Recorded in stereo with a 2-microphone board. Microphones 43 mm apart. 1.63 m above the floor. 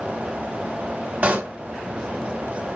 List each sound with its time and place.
1.2 s a pop: 35° right (ahead or behind), 1.6 m